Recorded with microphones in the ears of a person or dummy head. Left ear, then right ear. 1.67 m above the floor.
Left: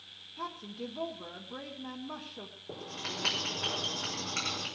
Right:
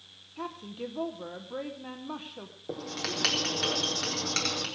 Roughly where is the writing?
Right.